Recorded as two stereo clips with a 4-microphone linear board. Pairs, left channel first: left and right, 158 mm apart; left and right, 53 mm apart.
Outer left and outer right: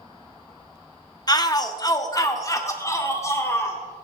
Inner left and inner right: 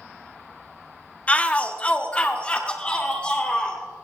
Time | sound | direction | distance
1.3 | a shout | 25° left (ahead or behind) | 1.0 m